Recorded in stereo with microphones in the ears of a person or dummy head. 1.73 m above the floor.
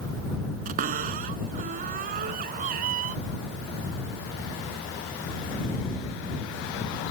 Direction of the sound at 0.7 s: 45° right (ahead or behind).